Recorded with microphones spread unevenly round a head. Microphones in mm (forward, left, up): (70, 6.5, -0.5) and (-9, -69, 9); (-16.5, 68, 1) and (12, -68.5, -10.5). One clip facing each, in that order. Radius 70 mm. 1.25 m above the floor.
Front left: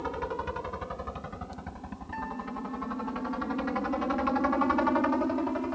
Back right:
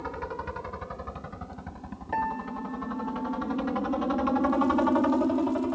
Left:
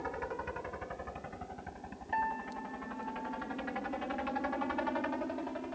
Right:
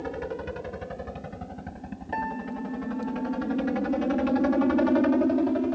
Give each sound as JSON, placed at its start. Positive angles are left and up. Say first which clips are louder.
{"t": 0.0, "sound": "a helicopter", "louder": "front left 2 dB, right 7 dB", "azimuth_deg": -35}
{"t": 2.1, "sound": "a piano", "louder": "back right 7 dB, right 4 dB", "azimuth_deg": -110}